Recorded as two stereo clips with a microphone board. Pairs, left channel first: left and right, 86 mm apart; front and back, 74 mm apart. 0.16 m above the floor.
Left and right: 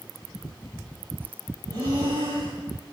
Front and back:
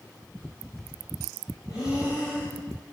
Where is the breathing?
40° right, 10 m.